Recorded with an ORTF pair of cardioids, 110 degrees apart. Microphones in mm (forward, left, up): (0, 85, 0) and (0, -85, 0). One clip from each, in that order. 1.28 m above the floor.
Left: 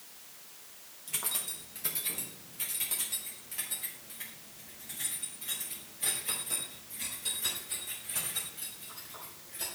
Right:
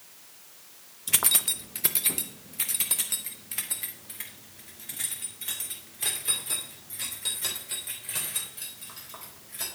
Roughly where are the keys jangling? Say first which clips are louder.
Right 11 dB; ahead right.